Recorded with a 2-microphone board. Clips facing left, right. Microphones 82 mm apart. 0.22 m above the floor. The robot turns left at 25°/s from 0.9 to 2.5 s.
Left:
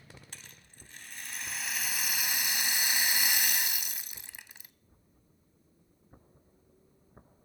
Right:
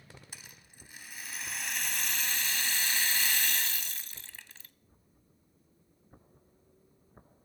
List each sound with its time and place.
0.3 s a rattle: 165° right, 0.7 m; by 4.7 s 155° left, 0.7 m